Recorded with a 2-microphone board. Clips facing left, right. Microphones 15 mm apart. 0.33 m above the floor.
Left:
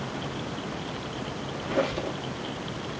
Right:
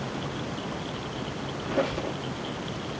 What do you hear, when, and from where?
1.6 s a squeak: 65° left (ahead or behind), 4 m